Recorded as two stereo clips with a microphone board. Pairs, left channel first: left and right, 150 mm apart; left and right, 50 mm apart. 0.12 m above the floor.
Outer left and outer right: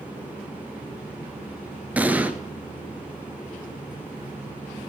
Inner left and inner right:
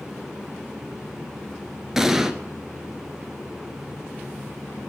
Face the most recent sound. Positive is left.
turn(degrees=-10)  # may be behind; listen again after turning